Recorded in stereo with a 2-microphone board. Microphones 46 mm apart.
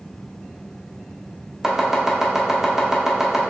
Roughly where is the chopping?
Centre.